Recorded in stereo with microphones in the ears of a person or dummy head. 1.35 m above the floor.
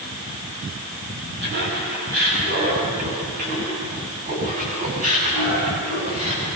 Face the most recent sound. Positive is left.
turn(degrees=-30)  # may be behind; listen again after turning